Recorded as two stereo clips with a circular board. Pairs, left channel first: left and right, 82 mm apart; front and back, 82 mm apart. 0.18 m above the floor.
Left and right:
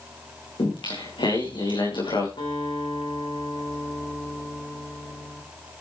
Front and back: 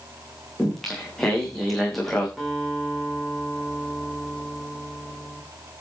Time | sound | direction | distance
0.6 | singing | 85° left | 7 m
2.4 | a guitar | 90° left | 8.5 m